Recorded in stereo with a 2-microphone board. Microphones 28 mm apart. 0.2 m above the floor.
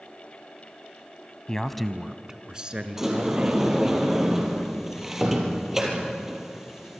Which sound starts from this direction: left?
A man speaking, at 1.5 s.